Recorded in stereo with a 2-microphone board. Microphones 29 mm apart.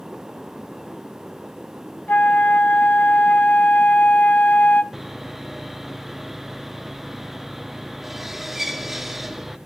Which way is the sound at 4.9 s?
10° right (ahead or behind).